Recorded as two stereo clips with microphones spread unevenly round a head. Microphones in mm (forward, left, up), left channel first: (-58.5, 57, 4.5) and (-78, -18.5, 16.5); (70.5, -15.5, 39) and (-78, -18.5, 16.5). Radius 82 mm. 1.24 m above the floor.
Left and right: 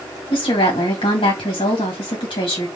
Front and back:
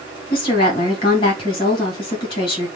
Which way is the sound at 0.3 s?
60° left.